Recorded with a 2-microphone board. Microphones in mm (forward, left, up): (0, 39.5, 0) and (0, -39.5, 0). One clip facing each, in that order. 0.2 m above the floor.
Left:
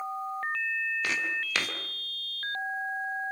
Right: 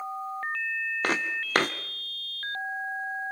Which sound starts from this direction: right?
Footsteps, at 1.0 s.